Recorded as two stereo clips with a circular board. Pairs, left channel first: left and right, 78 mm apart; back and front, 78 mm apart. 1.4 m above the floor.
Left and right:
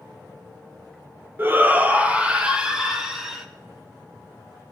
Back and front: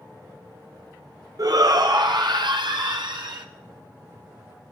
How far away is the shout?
About 1.0 m.